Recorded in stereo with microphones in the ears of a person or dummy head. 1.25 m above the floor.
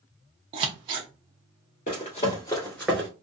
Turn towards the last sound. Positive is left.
turn(degrees=-10)  # may be behind; listen again after turning